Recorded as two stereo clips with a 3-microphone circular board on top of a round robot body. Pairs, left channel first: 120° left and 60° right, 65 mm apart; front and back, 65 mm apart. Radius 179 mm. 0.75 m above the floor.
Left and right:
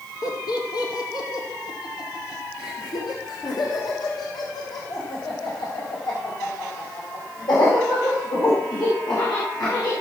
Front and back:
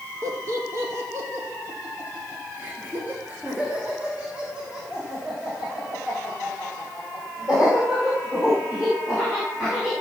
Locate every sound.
0.2 s laughter: 140° left, 1.9 m; by 9.9 s 100° left, 6.5 m